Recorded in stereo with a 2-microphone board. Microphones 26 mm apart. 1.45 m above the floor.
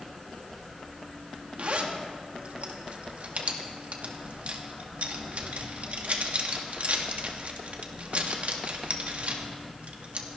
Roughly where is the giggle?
No giggle in this recording.